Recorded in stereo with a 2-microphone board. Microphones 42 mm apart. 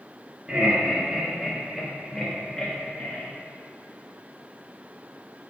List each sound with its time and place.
0.5 s laughter: 25° right (ahead or behind), 2.5 m; by 3.2 s 30° left (ahead or behind), 1.6 m